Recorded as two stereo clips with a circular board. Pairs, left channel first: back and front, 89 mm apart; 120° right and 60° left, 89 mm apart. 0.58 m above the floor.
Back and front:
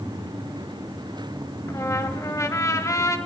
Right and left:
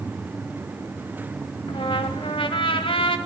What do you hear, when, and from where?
1.7 s a trumpet: 125° right, 1.4 m